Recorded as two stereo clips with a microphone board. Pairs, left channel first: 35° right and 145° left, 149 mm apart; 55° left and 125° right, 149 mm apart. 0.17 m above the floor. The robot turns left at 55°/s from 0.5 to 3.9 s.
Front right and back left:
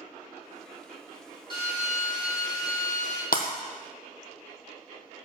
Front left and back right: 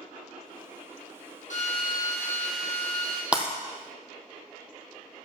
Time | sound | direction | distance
1.5 | a drill | 20° left | 3 m
3.3 | breaking glass | 40° right | 1.3 m